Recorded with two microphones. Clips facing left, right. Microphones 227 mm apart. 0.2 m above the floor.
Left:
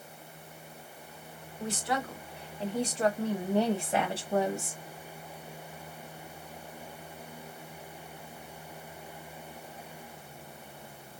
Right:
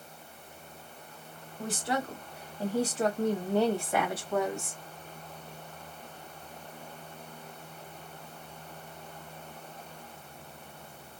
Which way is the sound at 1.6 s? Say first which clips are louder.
Right 1 dB; 35° right (ahead or behind).